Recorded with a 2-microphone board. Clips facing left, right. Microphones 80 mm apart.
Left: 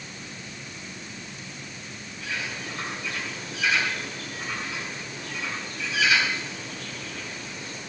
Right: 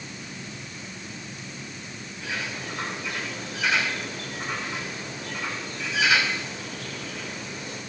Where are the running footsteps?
I don't hear running footsteps.